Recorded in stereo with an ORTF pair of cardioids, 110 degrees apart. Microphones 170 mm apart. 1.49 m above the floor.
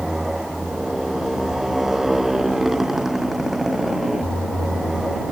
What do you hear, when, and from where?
0.0 s a motorcycle: straight ahead